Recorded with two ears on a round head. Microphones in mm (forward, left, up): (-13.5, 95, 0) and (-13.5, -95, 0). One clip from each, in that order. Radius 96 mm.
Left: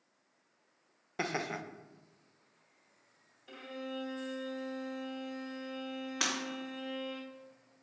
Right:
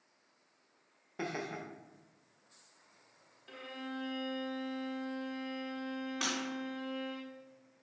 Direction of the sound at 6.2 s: 25° left (ahead or behind).